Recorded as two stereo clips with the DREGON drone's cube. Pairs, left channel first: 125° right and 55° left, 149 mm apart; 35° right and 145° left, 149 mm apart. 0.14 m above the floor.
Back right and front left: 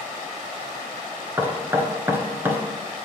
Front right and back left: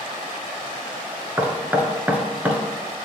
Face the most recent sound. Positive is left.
turn(degrees=90)